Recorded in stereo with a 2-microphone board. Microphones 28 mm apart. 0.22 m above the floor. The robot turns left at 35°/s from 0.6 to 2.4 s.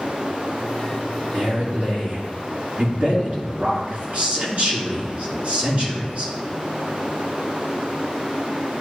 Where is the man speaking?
65° right, 3 m; by 6.3 s 100° right, 3 m.